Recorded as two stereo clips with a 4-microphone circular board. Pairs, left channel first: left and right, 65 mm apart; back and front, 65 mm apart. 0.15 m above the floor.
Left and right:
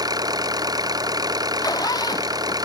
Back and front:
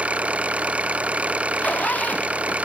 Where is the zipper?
115° left.